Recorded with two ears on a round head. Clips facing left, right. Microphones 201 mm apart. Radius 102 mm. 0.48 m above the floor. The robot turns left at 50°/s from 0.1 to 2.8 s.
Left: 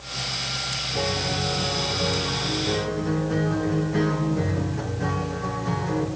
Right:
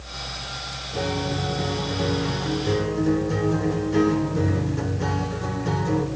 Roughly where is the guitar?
Ahead.